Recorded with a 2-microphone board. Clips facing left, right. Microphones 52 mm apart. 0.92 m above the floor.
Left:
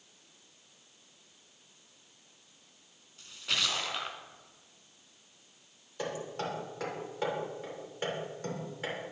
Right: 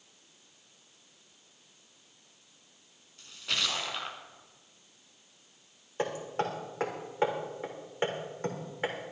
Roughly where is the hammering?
Right.